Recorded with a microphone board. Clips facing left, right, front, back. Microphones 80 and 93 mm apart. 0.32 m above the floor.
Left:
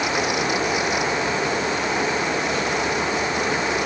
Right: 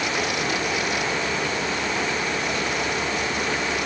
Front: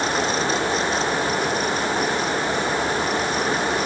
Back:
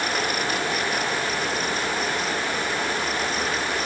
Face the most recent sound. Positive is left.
No sound to turn to.